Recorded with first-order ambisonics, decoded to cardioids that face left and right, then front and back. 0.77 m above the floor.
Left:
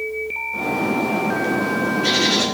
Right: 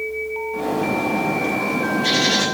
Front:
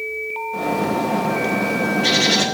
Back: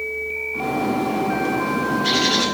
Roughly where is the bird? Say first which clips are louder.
Even, front 2 dB; ahead.